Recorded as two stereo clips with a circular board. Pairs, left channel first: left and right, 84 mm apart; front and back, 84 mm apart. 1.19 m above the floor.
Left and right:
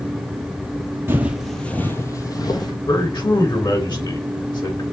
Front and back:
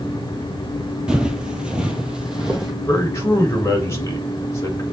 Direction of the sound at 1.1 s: 110° right.